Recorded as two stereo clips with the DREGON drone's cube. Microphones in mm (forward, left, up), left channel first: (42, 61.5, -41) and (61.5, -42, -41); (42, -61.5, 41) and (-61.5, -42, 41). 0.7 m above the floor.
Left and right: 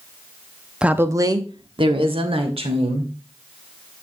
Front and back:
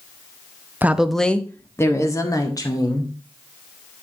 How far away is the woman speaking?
About 0.8 m.